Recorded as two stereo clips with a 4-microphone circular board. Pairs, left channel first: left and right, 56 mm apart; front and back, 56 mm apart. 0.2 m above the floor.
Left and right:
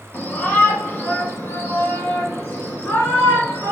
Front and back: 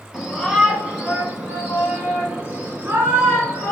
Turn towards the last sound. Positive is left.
turn(degrees=135)